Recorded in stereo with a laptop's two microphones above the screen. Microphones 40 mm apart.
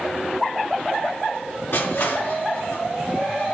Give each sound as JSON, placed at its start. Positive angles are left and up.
{"t": 1.7, "sound": "crushing", "side_deg": 75, "distance_m": 3.0}